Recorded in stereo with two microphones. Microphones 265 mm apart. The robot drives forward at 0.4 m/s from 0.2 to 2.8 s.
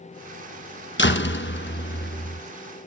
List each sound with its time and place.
1.0 s a door slam: 45° left (ahead or behind), 1.0 m; by 2.4 s 40° left (ahead or behind), 1.1 m